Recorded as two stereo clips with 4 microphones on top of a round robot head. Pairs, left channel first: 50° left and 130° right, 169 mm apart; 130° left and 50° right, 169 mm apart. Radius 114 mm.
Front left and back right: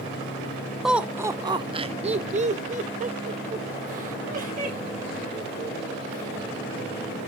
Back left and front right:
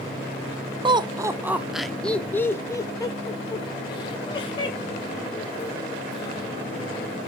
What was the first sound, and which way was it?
Laughter, 45° right.